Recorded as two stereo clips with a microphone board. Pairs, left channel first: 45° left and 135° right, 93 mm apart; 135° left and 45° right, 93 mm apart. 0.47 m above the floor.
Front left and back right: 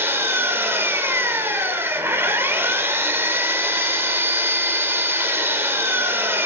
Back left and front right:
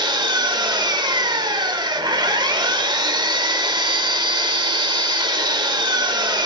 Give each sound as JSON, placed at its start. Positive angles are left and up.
{"t": 0.0, "sound": "an engine running", "azimuth_deg": -70, "distance_m": 1.3}